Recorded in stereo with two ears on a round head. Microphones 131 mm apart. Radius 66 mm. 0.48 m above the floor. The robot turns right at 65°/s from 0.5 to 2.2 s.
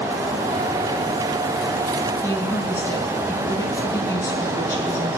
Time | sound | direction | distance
2.2 | a woman speaking | 20° left (ahead or behind) | 4.5 m